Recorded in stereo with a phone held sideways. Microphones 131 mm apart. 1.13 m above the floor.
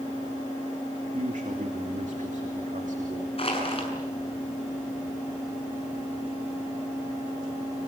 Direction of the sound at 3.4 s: 45° left (ahead or behind).